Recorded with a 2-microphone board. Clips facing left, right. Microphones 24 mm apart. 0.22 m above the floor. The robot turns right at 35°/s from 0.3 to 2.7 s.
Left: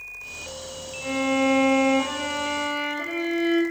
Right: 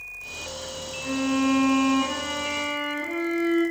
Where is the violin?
15° left, 5 m; by 3.6 s 75° left, 5 m.